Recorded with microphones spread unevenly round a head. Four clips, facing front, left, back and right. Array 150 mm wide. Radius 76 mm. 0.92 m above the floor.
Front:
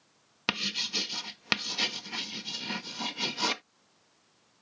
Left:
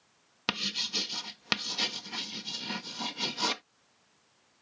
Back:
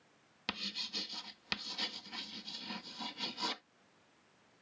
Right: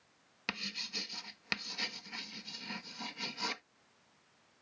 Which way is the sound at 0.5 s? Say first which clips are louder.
Left 7 dB, front 9 dB; 35° left.